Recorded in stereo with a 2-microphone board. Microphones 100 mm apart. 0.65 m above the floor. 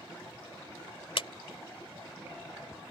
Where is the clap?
65° left (ahead or behind).